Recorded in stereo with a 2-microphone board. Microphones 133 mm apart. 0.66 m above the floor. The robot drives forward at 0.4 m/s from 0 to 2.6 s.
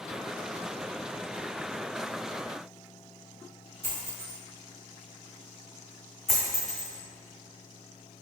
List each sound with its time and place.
3.8 s a dropped coin: 60° right (ahead or behind), 1.6 m
6.3 s a dropped coin: centre (ahead or behind), 1.8 m